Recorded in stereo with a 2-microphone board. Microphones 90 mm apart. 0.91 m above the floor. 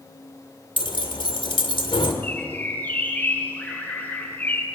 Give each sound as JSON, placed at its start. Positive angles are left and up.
{"t": 0.8, "sound": "keys jangling", "side_deg": 70, "distance_m": 2.0}
{"t": 2.2, "sound": "a bird", "side_deg": 20, "distance_m": 3.5}